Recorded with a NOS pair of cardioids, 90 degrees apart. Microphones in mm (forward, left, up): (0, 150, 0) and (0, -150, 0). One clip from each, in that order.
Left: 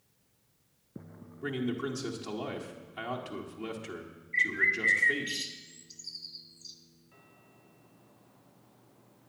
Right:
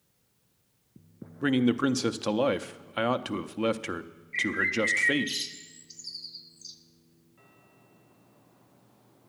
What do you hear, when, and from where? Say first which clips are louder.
1.4 s a man speaking: right 8 dB; 65° right, 0.7 m
4.3 s a bird: even; 20° right, 0.8 m